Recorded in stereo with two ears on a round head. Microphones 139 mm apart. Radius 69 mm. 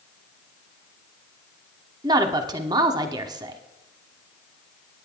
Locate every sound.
2.0 s a woman speaking: 25° right (ahead or behind), 1.1 m